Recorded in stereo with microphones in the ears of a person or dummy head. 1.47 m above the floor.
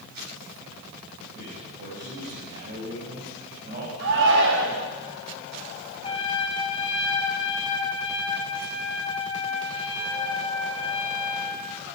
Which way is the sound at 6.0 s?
20° left (ahead or behind).